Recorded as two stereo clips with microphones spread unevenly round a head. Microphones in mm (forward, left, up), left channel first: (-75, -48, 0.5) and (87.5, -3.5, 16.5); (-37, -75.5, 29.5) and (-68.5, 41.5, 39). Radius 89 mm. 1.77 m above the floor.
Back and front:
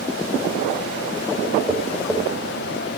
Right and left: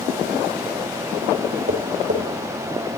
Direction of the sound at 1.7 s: 105° left.